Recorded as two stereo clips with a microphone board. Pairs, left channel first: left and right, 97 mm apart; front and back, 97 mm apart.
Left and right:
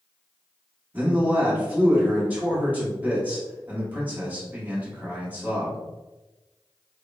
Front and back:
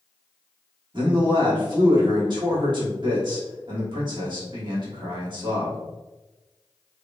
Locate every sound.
0.9 s a man speaking: 160° right, 1.5 m